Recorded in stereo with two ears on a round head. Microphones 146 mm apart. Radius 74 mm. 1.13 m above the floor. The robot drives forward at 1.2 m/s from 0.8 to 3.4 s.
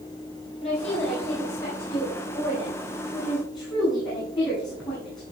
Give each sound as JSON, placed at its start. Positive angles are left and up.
{"t": 0.6, "sound": "a woman speaking", "side_deg": 45, "distance_m": 4.5}